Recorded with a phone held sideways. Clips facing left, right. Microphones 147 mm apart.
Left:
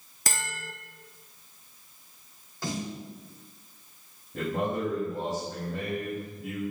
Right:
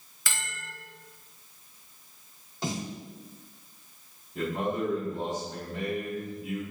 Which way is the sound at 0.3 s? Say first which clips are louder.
Left 4 dB; 40° left (ahead or behind).